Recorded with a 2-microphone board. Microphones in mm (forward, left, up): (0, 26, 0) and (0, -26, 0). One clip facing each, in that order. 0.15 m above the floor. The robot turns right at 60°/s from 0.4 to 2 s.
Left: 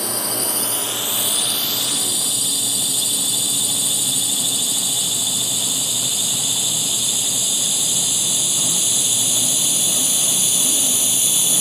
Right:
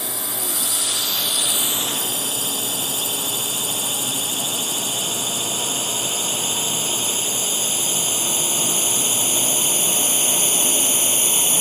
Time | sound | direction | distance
0.0 | a drone | 60° left (ahead or behind) | ?